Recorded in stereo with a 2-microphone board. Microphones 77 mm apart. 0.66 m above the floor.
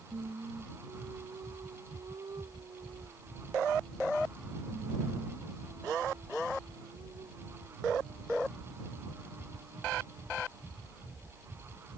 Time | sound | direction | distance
0.1 | singing | 65° right (ahead or behind) | ?